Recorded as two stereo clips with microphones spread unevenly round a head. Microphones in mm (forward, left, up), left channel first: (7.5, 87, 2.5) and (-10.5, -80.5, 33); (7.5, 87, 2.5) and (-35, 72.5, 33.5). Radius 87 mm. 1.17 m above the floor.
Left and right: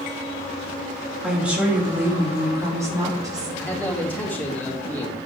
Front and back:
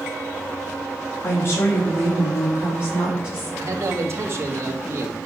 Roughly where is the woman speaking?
Ahead.